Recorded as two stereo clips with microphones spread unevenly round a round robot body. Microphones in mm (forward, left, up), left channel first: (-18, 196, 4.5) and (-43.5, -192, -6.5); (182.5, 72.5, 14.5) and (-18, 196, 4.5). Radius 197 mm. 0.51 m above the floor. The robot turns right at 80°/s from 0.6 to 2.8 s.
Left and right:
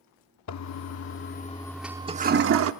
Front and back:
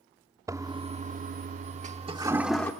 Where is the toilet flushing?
80° left, 0.7 m; by 2.7 s 110° right, 0.7 m.